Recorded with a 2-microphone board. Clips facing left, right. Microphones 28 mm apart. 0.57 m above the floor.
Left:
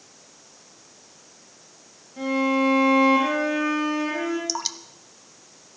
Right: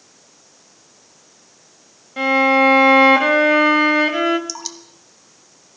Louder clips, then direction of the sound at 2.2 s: Right 8 dB; 75° right (ahead or behind).